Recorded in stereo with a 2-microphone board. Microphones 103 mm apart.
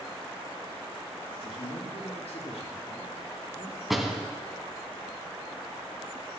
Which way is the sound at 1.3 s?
75° left (ahead or behind).